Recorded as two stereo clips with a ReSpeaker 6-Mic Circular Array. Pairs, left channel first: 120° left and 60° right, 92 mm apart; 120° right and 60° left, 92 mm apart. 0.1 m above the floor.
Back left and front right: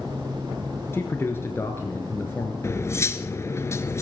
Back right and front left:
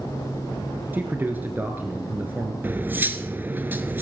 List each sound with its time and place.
0.9 s a man speaking: 100° left, 1.4 m
2.6 s cutlery clinking: 105° left, 0.9 m